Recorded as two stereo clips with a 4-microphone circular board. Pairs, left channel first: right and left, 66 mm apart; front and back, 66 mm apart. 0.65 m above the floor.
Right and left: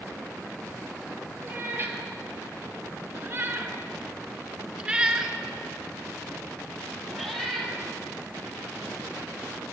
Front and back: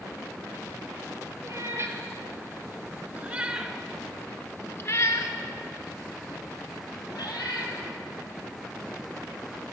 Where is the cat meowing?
150° left, 1.5 m; by 7.8 s 5° right, 2.0 m.